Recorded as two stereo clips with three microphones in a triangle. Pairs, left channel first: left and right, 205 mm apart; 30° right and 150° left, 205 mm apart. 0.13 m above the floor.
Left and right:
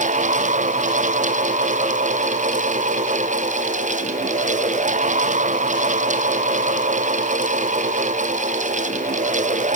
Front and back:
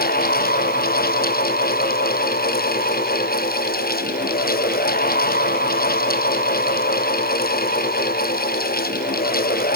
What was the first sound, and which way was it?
Only background noise.